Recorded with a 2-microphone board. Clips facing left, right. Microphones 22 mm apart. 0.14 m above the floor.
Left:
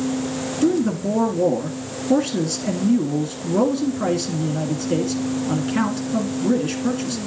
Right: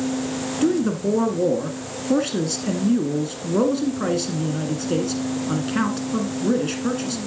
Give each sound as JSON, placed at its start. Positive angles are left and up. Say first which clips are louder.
{"t": 0.6, "sound": "a man speaking", "louder": "left 1 dB", "side_deg": -10, "distance_m": 1.2}